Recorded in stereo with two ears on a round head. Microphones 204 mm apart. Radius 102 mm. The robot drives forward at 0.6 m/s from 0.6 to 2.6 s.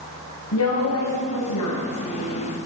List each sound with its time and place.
0.5 s a woman speaking: 65° left (ahead or behind), 3.5 m; by 2.4 s 80° left, 3.5 m